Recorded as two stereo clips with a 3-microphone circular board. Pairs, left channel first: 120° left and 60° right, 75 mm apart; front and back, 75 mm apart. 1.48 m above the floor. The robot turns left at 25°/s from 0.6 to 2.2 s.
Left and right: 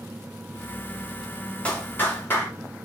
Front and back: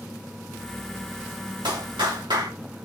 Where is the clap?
165° right, 3 m; by 2.5 s straight behind, 3 m.